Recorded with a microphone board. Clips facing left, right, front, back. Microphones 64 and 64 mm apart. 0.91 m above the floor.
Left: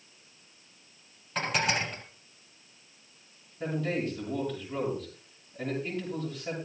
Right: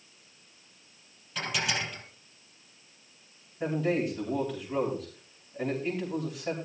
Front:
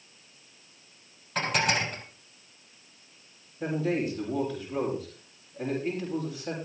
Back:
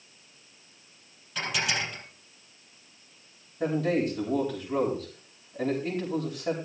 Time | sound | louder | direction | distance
1.4 | dishes clattering | left 3 dB, front 3 dB | 45° left | 4 m
3.6 | a man speaking | right 3 dB, back 2 dB | 175° right | 6 m